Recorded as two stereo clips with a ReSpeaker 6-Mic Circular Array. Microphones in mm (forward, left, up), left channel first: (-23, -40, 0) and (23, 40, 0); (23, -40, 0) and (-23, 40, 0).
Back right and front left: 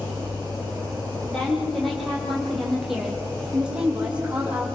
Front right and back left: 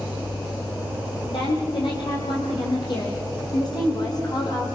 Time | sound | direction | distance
1.3 | a woman speaking | 35° right | 7 m